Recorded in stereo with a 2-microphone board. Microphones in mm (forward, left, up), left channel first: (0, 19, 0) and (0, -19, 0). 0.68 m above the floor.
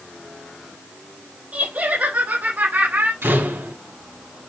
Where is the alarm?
No alarm in this recording.